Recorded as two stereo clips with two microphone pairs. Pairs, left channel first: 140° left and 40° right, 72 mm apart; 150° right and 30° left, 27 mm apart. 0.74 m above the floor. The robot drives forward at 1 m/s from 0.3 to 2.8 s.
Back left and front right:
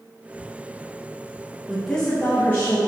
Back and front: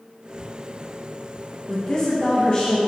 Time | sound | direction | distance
1.7 | a woman speaking | 115° right | 0.8 m